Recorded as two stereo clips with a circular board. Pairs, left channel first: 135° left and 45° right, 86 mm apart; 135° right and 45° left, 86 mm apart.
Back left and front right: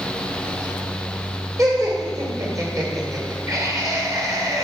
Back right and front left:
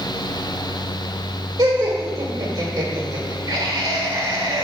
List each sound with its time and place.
1.6 s laughter: 5° left, 2 m